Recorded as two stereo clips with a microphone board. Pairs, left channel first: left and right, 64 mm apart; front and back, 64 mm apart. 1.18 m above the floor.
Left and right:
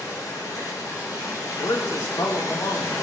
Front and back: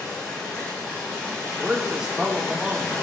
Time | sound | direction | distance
0.0 | running water | 70° left | 6 m
1.6 | a man speaking | 100° left | 1.8 m